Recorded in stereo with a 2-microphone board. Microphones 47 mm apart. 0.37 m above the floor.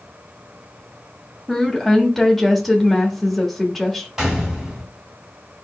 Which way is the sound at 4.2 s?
10° right (ahead or behind).